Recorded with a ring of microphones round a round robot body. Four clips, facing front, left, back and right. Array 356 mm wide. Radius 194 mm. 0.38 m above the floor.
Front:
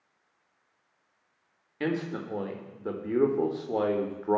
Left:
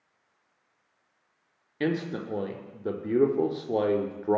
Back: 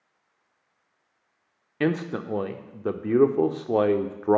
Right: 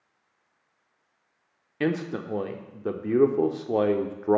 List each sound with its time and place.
1.8 s a man speaking: 165° right, 0.9 m